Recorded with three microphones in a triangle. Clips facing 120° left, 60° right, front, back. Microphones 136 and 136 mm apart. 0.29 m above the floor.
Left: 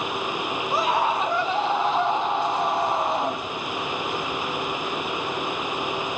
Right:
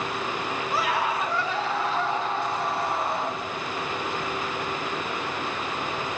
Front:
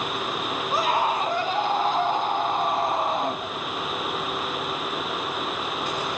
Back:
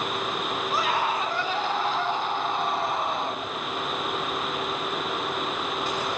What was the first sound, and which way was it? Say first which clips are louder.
A scream: left 4 dB, front 4 dB; 65° left.